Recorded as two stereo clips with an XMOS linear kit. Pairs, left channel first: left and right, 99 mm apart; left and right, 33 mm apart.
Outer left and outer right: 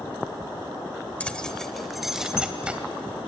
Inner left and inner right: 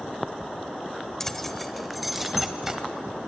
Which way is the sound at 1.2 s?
15° left (ahead or behind).